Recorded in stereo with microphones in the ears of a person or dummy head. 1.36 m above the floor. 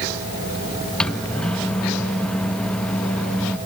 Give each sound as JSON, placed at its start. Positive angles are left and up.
{"t": 1.0, "sound": "a microwave", "side_deg": 10}